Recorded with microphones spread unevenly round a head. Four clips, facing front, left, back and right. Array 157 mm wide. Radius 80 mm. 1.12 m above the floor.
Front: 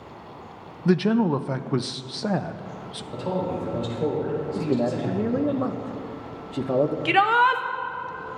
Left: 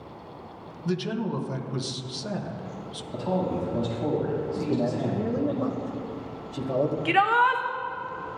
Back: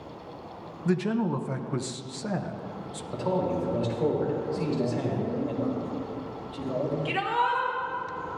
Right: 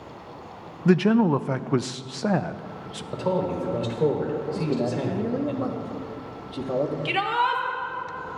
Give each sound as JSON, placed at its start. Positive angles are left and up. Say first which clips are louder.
{"t": 0.8, "sound": "a man speaking", "louder": "right 10 dB, front 6 dB", "azimuth_deg": -55, "distance_m": 0.5}
{"t": 3.1, "sound": "a man speaking", "louder": "right 2 dB, even", "azimuth_deg": -80, "distance_m": 4.0}
{"t": 4.5, "sound": "a man speaking", "louder": "right 1 dB, front 4 dB", "azimuth_deg": -15, "distance_m": 1.2}
{"t": 7.0, "sound": "a shout", "louder": "left 6 dB, front 9 dB", "azimuth_deg": 10, "distance_m": 1.0}